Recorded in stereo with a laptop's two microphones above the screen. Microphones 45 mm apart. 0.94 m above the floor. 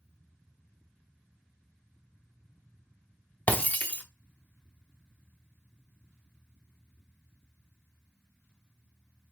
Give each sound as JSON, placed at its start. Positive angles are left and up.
{"t": 3.5, "sound": "breaking glass", "side_deg": 30, "distance_m": 0.8}